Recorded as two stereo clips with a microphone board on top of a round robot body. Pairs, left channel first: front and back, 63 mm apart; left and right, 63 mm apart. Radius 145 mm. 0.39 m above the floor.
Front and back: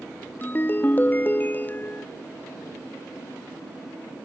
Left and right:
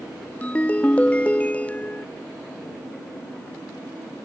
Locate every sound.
0.4 s a ringtone: 35° left